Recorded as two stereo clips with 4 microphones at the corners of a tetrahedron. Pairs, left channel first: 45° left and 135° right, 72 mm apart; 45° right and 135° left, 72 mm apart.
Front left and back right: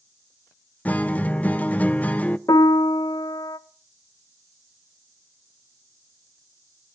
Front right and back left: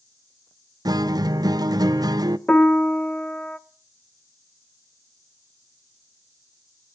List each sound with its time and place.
0.8 s a guitar: 110° left, 0.5 m
2.5 s a piano: 30° left, 0.7 m